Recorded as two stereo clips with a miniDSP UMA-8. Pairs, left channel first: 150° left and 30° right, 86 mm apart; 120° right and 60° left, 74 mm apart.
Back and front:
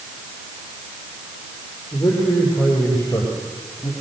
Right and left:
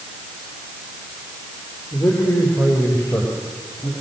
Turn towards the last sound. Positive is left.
turn(degrees=-165)